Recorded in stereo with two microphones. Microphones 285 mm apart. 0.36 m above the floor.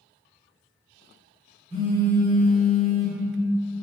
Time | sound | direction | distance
1.7 | a phone buzzing | 25° right (ahead or behind) | 1.3 m